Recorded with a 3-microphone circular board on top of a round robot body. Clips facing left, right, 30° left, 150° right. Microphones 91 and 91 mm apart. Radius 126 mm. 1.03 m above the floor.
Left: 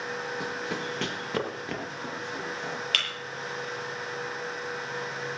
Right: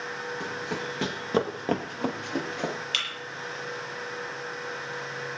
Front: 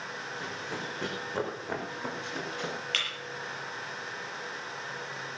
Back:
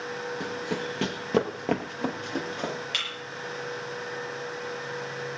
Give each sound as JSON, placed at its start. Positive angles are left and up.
{"t": 0.4, "sound": "running footsteps", "azimuth_deg": 170, "distance_m": 2.5}
{"t": 2.9, "sound": "breaking glass", "azimuth_deg": 130, "distance_m": 7.5}